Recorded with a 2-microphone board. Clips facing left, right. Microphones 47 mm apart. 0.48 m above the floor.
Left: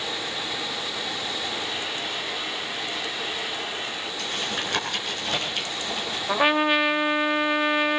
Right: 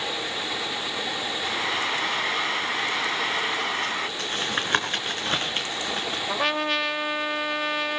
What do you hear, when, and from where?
1.4 s frying: 70° right (ahead or behind), 2.5 m
4.2 s tapping: 35° right (ahead or behind), 4.5 m
6.3 s a trumpet: 20° left (ahead or behind), 0.7 m